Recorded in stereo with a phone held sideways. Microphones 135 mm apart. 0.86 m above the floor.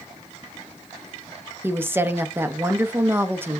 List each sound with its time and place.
1.6 s a woman speaking: 15° right (ahead or behind), 0.7 m